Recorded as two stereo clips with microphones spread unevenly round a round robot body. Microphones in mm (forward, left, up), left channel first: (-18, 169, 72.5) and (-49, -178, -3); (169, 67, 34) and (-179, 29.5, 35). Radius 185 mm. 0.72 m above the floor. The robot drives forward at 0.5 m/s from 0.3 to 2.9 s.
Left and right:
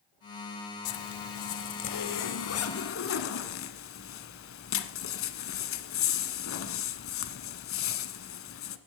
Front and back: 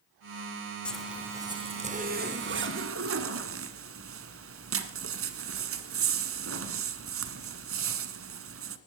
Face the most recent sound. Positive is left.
turn(degrees=135)